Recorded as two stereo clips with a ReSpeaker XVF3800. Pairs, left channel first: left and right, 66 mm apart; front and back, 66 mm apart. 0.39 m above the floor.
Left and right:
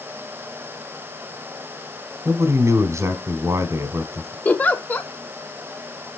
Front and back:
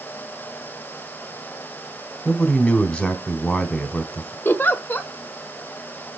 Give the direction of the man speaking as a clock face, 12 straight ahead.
2 o'clock.